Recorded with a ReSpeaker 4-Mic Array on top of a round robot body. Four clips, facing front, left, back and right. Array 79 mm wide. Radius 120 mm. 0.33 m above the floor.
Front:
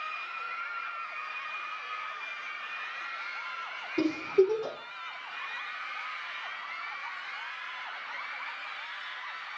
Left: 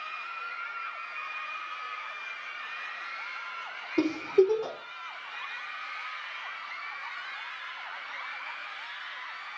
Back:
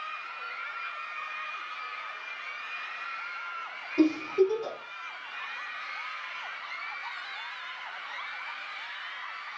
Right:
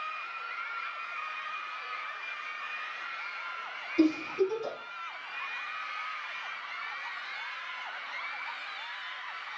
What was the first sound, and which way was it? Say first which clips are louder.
A giggle: left 2 dB, back 1 dB; 85° left.